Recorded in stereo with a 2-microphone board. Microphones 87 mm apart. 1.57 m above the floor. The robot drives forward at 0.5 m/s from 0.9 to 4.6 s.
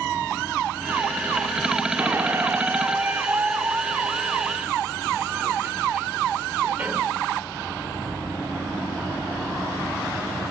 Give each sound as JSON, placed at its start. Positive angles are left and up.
{"t": 2.0, "sound": "a squeak", "side_deg": -30, "distance_m": 1.2}